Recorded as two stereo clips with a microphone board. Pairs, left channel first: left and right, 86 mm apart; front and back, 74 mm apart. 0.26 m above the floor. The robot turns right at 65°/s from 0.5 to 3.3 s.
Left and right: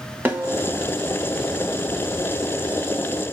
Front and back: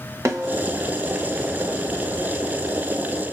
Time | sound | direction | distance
0.2 | a snare drum | 150° right | 0.9 m